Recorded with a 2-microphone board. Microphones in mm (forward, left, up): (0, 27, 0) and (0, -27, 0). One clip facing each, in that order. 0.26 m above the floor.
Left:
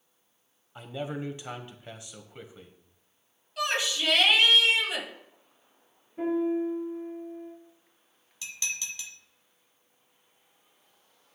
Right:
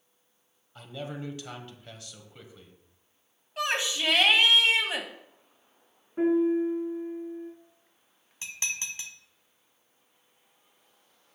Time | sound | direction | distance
0.8 | a man speaking | 20° left (ahead or behind) | 1.0 m
3.6 | a shout | 30° right (ahead or behind) | 1.9 m
6.2 | a piano | 60° right (ahead or behind) | 3.5 m
8.4 | dishes clattering | 35° right (ahead or behind) | 1.2 m